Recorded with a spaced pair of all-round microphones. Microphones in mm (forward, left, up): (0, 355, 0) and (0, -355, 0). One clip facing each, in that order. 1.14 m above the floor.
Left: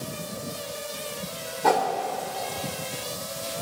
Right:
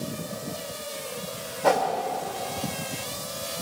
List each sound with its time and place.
1.6 s a whoosh: 10° right (ahead or behind), 1.9 m